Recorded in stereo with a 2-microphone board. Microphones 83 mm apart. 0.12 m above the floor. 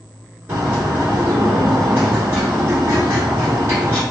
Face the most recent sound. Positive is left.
turn(degrees=-25)  # may be behind; listen again after turning